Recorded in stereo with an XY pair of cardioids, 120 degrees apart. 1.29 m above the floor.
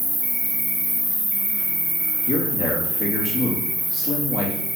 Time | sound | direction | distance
0.0 | an insect | straight ahead | 1.6 m
2.3 | a man speaking | 50° left | 2.5 m